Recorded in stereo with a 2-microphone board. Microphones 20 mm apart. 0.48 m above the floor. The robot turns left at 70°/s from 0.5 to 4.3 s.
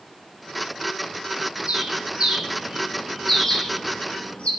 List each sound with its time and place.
1.7 s a bird: 70° right (ahead or behind), 4 m; by 4.5 s 75° left (ahead or behind), 4 m